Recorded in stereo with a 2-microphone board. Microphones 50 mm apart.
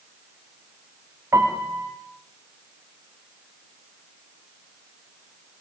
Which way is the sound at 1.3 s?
70° right (ahead or behind).